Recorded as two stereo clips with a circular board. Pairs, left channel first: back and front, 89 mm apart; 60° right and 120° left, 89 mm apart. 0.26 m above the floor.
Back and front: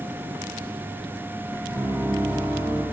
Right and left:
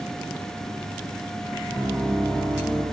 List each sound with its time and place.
1.7 s a piano: 30° right, 2 m